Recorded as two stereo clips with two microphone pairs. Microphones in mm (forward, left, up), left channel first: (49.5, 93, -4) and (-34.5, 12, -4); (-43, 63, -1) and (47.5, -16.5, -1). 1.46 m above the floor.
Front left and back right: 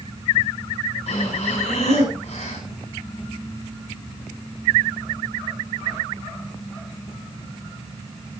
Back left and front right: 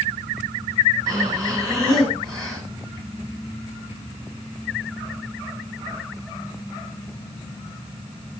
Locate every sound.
1.1 s breathing: 25° left, 8 m